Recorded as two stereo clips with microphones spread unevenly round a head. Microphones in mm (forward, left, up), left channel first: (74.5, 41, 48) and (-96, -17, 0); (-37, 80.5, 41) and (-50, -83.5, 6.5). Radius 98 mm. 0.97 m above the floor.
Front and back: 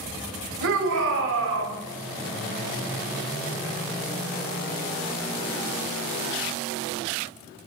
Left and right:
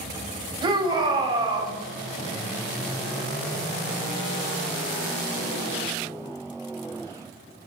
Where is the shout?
160° right, 5 m.